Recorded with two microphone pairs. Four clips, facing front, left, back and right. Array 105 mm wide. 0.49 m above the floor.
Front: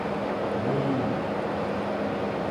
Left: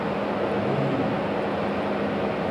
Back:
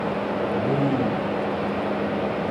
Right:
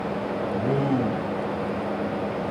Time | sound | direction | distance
0.5 | a man speaking | 120° right | 2.5 m